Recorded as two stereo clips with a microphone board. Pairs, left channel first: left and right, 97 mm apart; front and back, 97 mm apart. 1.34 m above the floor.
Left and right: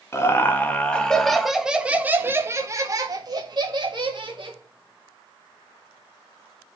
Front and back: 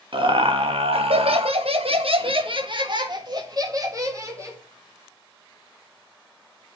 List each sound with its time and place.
0.1 s laughter: 150° left, 1.8 m; by 4.6 s 120° right, 2.5 m